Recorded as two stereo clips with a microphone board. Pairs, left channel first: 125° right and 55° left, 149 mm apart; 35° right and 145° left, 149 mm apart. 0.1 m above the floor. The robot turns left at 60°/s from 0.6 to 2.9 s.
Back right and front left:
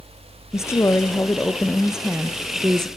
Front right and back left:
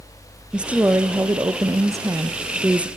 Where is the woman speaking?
145° right, 1.2 m; by 2.9 s 80° left, 1.2 m.